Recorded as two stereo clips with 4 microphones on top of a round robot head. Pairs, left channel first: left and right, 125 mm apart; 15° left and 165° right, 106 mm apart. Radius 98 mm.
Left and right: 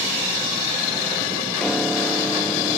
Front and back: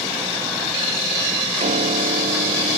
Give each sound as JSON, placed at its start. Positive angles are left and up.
{"t": 1.6, "sound": "a piano", "azimuth_deg": 175}